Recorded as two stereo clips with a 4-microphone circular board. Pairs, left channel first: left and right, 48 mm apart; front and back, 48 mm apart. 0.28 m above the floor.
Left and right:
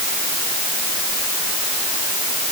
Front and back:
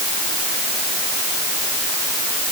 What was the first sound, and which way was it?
Only background noise.